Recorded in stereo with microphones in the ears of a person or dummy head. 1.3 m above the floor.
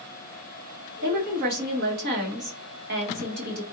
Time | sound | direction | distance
1.0 | a woman speaking | 55° right (ahead or behind) | 1.5 m